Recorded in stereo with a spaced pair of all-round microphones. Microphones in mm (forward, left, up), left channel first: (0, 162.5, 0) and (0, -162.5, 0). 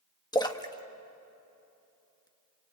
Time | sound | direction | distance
0.3 | a splash | 10° left (ahead or behind) | 1.1 m